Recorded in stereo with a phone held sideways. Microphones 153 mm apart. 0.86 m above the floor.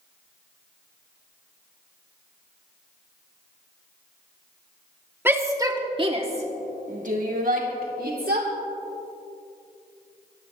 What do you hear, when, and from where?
5.2 s a shout: 15° right (ahead or behind), 1.7 m; by 8.5 s 75° right (ahead or behind), 2.5 m